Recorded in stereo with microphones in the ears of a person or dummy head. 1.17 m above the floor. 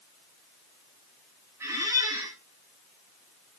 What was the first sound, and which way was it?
A squeak, 15° right (ahead or behind).